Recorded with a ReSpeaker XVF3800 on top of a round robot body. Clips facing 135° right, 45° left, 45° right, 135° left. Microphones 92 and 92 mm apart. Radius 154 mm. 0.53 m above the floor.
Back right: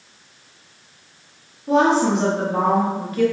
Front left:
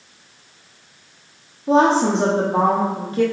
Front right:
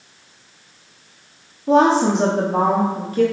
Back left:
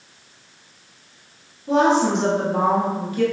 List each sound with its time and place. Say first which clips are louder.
1.7 s a woman speaking: front left 1 dB, front right 3 dB; 10° right, 1.2 m